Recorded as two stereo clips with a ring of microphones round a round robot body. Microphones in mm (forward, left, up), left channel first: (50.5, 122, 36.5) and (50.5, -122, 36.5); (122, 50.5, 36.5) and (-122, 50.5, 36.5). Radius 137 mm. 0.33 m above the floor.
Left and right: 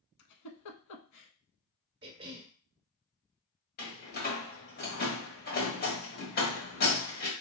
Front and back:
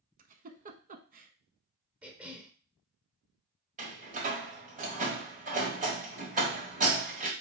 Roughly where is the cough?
Right.